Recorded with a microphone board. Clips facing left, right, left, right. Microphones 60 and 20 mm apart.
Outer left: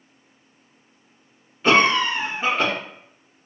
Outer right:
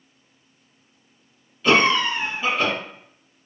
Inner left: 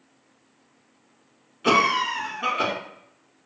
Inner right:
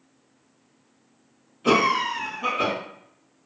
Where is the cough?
30° left (ahead or behind), 1.2 m.